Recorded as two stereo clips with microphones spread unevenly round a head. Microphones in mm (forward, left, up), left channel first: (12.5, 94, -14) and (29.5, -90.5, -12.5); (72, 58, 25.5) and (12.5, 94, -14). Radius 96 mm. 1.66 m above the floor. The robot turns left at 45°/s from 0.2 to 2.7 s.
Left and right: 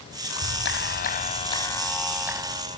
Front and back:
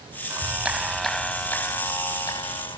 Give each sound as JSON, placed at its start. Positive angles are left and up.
{"t": 0.3, "sound": "a clap", "azimuth_deg": 85}